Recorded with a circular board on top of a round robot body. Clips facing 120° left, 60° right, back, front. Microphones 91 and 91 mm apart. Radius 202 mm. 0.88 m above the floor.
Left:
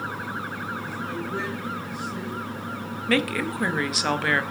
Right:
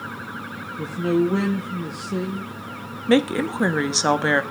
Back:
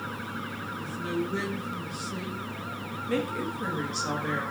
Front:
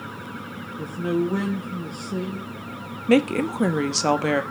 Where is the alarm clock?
I don't hear an alarm clock.